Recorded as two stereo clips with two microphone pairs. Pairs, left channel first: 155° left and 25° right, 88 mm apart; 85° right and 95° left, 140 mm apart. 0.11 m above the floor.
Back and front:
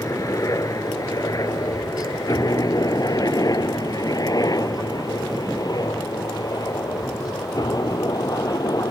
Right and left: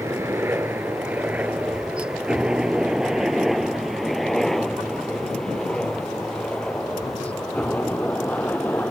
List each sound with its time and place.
0.0 s a helicopter: 150° left; by 8.9 s 165° right